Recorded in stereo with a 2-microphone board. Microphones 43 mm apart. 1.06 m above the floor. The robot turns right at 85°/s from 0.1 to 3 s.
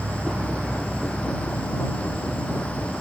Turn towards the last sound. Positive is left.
turn(degrees=175)